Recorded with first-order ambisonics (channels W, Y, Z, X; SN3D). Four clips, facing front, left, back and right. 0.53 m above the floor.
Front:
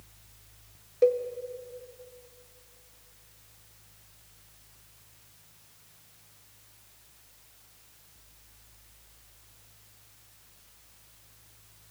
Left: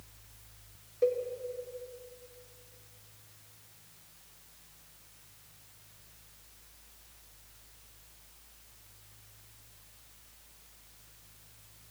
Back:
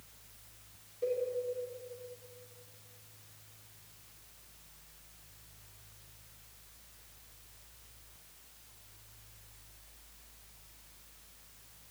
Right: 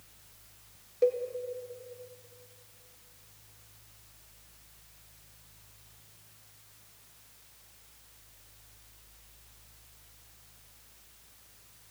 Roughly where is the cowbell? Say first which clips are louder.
Right 2 dB, front 10 dB; ahead.